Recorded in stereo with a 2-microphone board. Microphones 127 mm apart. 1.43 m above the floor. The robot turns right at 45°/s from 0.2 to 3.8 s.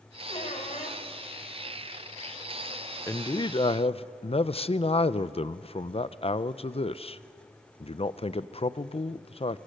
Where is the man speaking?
25° left, 0.6 m; by 9.6 s 60° left, 0.6 m.